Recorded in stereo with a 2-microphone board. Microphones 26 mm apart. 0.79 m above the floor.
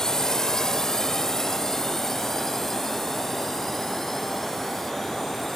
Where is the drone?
20° left (ahead or behind); by 5.6 s 10° left (ahead or behind).